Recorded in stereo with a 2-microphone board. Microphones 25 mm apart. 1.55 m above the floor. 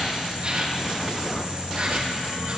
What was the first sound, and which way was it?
An insect, 45° right (ahead or behind).